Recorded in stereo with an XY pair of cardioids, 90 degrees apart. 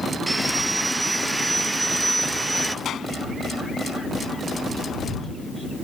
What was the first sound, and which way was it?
Sawing, 20° right.